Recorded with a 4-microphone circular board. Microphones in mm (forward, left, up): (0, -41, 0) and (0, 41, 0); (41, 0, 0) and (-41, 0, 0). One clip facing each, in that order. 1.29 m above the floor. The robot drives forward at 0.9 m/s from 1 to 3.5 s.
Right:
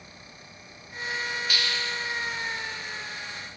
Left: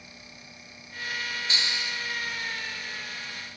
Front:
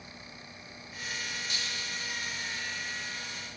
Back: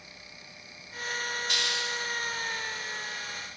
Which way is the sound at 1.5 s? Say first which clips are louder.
Right 2 dB, back 6 dB; 155° left.